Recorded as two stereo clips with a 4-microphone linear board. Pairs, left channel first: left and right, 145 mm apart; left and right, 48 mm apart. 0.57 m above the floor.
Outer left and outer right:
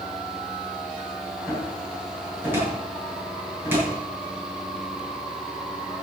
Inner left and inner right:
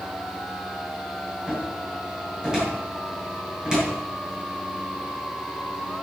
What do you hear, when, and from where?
1.5 s a cupboard door: 15° right (ahead or behind), 6.5 m